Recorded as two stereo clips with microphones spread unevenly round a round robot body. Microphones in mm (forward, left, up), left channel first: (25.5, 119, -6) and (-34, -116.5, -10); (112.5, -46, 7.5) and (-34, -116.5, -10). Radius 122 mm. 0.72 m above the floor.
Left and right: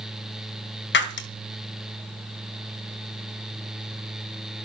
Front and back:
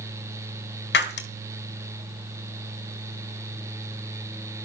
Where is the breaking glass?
30° left, 1.8 m.